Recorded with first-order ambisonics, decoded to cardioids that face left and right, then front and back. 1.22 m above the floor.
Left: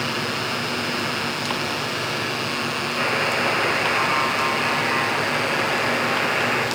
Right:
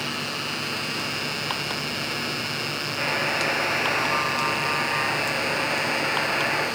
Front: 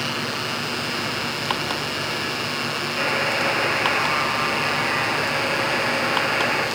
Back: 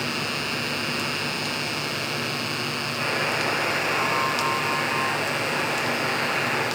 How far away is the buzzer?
About 1.5 m.